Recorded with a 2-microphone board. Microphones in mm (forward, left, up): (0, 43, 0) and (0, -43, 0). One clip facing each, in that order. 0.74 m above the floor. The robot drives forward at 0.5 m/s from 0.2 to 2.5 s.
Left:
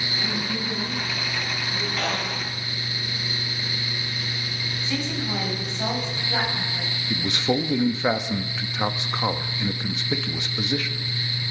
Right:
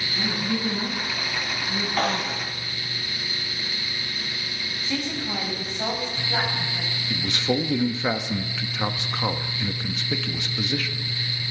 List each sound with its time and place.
0.2 s a woman speaking: 80° right, 5.5 m; by 2.5 s 85° right, 5.5 m
2.0 s a snare drum: 50° right (ahead or behind), 5.5 m
4.8 s a woman speaking: 10° right (ahead or behind), 5 m
7.1 s a man speaking: 15° left (ahead or behind), 0.8 m